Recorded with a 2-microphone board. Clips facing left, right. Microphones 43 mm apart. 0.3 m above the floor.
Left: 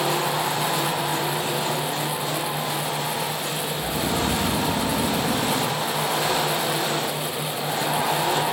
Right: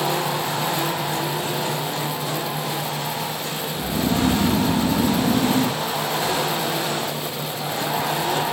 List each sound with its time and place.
3.8 s snoring: 25° right (ahead or behind), 4 m